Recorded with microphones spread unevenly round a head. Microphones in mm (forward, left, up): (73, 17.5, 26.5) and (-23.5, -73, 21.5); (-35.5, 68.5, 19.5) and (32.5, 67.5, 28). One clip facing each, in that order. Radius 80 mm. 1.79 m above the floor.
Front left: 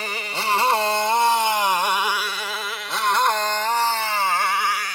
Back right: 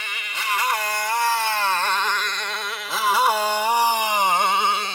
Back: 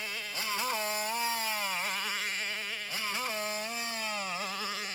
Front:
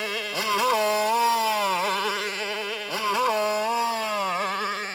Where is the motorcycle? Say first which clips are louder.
Front left 5 dB, front 10 dB; 10° right; by 5.0 s 70° right.